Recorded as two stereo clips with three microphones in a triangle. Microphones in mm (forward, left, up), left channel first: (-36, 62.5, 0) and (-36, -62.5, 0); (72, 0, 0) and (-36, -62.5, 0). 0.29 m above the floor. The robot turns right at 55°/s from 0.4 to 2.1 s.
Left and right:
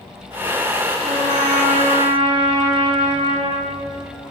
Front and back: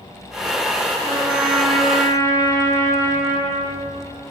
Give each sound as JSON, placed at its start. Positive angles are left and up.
{"t": 1.0, "sound": "a trumpet", "azimuth_deg": -90, "distance_m": 8.0}